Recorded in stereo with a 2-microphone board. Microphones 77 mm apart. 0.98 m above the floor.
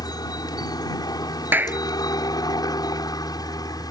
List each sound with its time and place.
0.0 s a helicopter: 65° left (ahead or behind); by 3.9 s 60° left (ahead or behind)
1.5 s a clap: 25° right (ahead or behind)